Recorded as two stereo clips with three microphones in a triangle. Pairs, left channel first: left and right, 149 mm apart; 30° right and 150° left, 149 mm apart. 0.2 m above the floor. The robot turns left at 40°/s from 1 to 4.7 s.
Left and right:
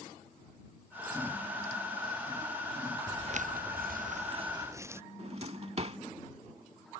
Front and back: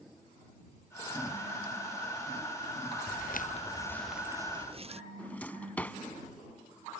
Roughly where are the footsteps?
Ahead.